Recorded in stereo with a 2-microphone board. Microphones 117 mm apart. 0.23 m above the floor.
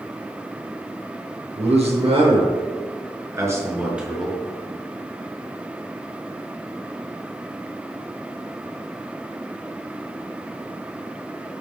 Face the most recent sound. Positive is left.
turn(degrees=0)  # may be behind; listen again after turning